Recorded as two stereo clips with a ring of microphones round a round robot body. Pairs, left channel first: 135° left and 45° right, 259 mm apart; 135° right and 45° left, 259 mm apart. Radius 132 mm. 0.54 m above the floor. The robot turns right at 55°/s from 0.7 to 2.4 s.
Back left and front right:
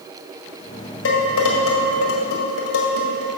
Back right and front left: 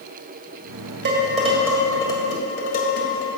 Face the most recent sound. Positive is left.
turn(degrees=165)